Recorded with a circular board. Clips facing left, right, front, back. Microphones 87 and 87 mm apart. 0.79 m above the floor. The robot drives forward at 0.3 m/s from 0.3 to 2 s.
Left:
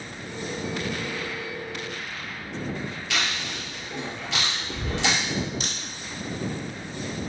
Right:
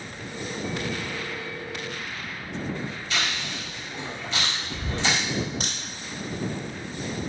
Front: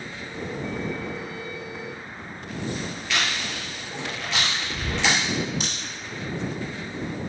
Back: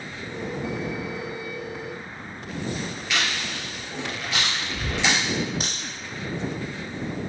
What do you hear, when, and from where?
3.1 s chewing: 100° left, 2 m
5.6 s a crack: 130° right, 1.5 m